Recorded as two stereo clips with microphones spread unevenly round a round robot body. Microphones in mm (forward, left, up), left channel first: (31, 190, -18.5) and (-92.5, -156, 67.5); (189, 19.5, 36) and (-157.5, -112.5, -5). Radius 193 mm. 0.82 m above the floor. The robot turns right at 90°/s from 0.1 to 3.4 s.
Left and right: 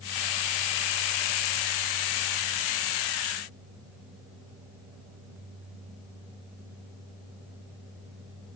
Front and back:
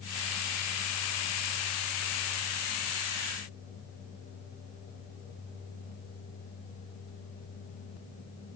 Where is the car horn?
No car horn in this recording.